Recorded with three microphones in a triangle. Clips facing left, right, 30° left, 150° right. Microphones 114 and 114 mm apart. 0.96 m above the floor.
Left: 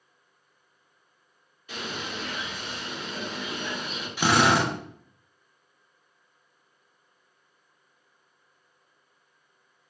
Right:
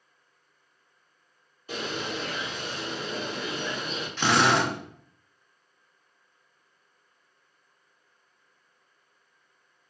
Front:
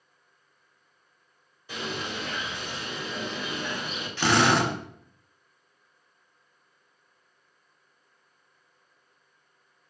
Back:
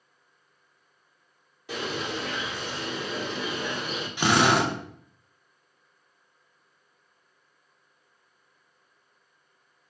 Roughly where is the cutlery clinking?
I don't hear cutlery clinking.